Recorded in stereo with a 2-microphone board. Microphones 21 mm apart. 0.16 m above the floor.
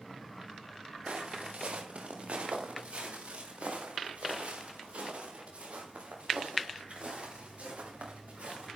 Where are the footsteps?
65° right (ahead or behind), 3.5 m; by 8.7 s 75° right (ahead or behind), 9 m.